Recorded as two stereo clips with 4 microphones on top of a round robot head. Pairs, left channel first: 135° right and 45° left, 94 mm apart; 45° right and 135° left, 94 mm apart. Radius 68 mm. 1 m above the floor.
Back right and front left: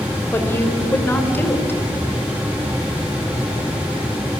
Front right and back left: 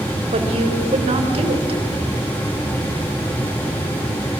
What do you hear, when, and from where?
0.3 s a woman speaking: 155° left, 3.5 m